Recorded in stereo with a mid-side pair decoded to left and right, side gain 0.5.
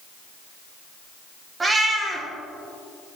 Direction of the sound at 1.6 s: 30° right.